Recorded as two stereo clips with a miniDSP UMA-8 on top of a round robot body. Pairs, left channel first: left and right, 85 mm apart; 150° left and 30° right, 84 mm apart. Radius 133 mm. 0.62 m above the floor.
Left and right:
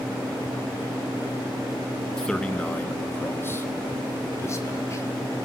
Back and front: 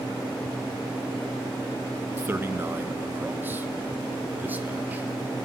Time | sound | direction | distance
2.2 | a man speaking | 10° left | 1.3 m